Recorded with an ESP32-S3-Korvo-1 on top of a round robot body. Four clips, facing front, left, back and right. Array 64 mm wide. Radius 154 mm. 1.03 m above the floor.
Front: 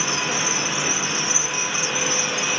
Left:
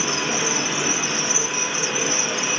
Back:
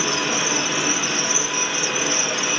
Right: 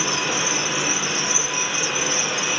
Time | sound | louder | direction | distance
0.0 | an insect | even, back 2 dB | 130° left | 0.8 m